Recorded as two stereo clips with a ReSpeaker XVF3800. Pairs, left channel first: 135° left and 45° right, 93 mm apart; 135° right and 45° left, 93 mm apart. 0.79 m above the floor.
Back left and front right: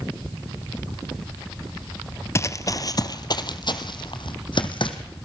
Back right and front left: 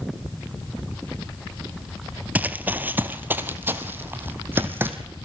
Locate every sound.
2.4 s running footsteps: 105° left, 0.9 m; by 5.0 s 115° left, 2 m